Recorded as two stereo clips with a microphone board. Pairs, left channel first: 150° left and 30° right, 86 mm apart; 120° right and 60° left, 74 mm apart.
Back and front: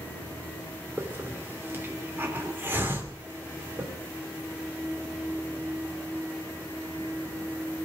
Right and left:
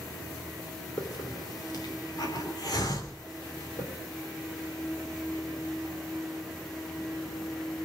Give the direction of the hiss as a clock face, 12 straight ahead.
3 o'clock.